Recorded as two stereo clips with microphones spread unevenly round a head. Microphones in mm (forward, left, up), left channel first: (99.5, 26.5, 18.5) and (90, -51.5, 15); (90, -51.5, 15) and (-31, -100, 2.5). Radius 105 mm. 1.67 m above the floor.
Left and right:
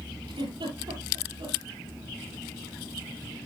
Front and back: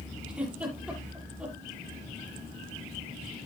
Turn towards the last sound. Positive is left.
turn(degrees=-75)